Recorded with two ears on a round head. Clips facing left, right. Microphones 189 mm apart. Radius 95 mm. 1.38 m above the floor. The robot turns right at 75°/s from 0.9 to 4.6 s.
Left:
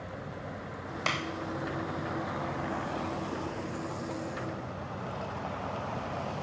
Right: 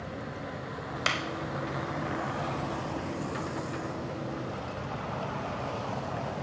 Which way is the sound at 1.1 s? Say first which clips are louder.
Even; 15° right (ahead or behind).